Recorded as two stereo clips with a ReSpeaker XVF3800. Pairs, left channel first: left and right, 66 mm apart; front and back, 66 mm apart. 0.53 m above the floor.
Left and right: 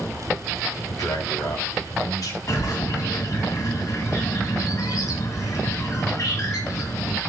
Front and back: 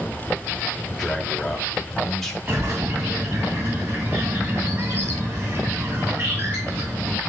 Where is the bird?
125° left, 2.5 m.